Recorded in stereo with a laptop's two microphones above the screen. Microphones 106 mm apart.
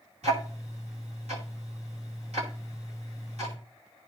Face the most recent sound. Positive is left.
turn(degrees=-80)